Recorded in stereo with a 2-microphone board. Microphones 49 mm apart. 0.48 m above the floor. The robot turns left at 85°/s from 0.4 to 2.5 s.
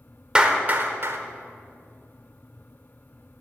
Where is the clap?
20° right (ahead or behind), 0.9 m; by 1.2 s 60° right (ahead or behind), 0.9 m.